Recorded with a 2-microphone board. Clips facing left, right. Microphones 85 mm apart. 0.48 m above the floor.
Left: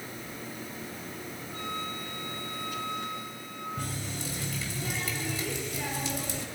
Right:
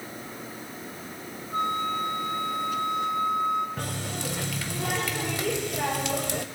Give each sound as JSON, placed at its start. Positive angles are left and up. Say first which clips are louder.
{"t": 1.5, "sound": "a flute", "louder": "right 11 dB", "side_deg": -55, "distance_m": 3.0}
{"t": 3.8, "sound": "a running tap", "louder": "right 4 dB", "side_deg": -65, "distance_m": 1.6}